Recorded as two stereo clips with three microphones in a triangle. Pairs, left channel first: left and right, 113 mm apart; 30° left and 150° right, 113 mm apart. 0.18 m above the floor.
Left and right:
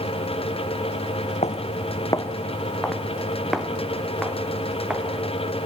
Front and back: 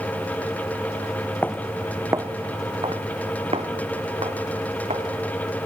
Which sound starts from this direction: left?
Footsteps, at 1.4 s.